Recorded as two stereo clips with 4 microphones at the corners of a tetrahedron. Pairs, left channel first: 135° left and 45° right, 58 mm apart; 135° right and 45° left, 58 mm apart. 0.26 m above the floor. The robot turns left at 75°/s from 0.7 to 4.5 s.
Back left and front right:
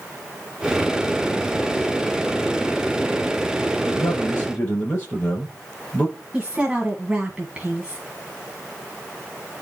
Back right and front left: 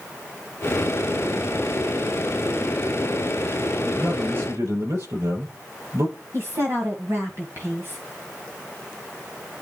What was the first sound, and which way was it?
A man speaking, 120° left.